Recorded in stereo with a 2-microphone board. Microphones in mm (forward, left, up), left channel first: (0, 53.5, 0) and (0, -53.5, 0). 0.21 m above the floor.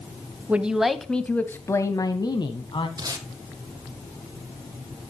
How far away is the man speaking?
About 1.0 m.